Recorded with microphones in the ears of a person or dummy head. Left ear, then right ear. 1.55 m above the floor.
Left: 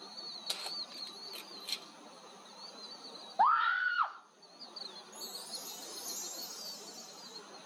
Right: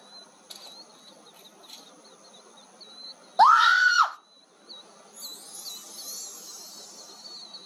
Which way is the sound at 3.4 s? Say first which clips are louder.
Right 11 dB; 85° right.